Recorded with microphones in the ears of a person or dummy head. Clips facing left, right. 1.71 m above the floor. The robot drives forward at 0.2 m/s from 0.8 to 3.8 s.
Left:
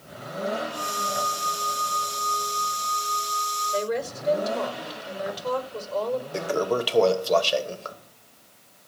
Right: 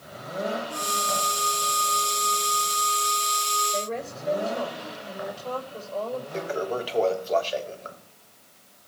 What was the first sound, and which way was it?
A woman speaking, 75° left (ahead or behind).